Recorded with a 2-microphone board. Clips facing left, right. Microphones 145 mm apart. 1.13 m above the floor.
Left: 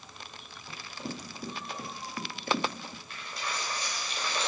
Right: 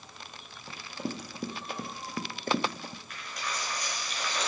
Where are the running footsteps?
60° right (ahead or behind), 2.5 m; by 3.0 s 35° right (ahead or behind), 1.4 m.